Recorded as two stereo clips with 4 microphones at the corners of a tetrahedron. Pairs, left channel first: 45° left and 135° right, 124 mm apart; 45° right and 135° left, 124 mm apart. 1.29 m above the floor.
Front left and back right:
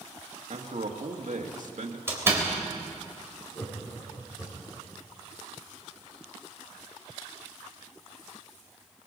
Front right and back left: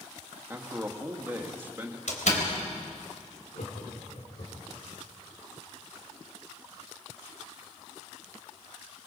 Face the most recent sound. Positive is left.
turn(degrees=-25)